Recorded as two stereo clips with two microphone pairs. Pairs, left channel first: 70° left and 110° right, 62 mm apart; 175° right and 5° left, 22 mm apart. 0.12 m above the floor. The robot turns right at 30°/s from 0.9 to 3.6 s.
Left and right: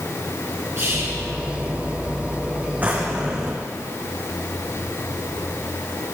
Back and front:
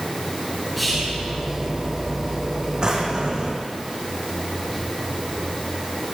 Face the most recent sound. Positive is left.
turn(degrees=-25)